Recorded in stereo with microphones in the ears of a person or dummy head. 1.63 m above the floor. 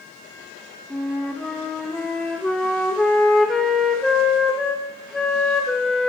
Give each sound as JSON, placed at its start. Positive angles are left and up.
{"t": 0.9, "sound": "a flute", "side_deg": 5, "distance_m": 0.6}